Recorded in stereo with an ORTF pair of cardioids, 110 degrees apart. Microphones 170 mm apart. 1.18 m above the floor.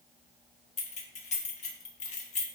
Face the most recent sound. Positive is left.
turn(degrees=45)